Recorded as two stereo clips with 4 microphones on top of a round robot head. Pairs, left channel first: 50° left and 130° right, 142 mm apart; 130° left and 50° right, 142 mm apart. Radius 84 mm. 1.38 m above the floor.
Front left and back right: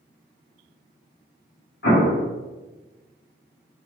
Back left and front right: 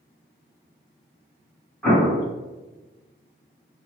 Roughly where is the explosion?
Ahead left.